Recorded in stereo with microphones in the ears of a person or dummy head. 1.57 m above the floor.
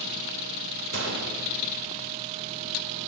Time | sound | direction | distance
0.9 | a gunshot | 60° right (ahead or behind) | 0.7 m